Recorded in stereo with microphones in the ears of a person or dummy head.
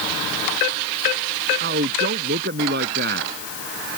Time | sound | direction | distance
1.6 | a man speaking | 45° right (ahead or behind) | ?